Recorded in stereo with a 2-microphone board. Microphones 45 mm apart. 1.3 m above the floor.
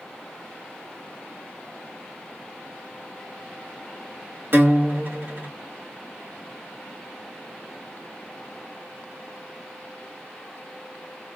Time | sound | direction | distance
4.5 | a guitar | 50° right (ahead or behind) | 1.6 m